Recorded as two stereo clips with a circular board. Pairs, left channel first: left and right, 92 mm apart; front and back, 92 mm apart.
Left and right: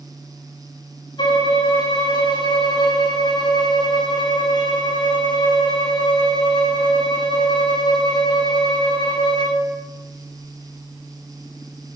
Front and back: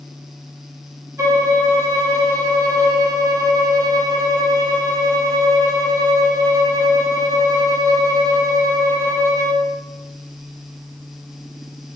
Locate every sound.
1.2 s a violin: 125° left, 0.6 m